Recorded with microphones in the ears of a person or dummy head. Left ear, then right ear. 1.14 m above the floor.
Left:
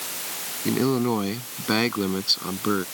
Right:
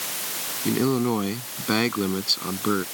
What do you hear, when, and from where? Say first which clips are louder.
0.7 s a man speaking: even; 10° left (ahead or behind)